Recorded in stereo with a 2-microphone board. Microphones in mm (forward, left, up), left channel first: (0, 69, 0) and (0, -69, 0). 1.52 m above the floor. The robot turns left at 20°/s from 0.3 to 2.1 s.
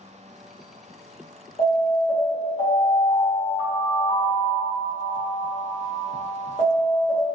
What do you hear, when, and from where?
1.6 s an alarm: 45° left (ahead or behind), 1.5 m; by 7.2 s 40° left (ahead or behind), 1.5 m